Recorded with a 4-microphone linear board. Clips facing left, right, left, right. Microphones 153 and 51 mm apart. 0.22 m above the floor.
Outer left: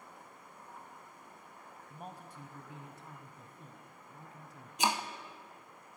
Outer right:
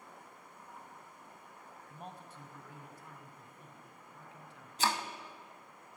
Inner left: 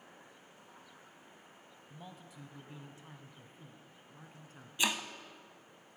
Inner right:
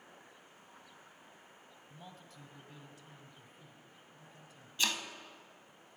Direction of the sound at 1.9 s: 5° left (ahead or behind).